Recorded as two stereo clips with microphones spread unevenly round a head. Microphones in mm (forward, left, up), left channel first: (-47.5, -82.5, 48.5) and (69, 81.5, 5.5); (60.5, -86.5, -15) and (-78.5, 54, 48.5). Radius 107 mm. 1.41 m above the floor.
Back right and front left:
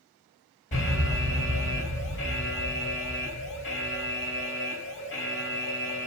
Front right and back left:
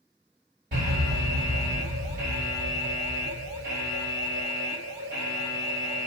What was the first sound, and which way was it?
An alarm, straight behind.